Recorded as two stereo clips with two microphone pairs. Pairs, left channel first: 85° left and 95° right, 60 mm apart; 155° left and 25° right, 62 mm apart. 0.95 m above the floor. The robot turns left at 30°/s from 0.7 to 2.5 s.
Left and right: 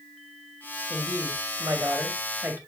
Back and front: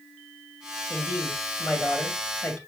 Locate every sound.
0.9 s a woman speaking: 95° right, 1.9 m; by 2.6 s 145° right, 1.9 m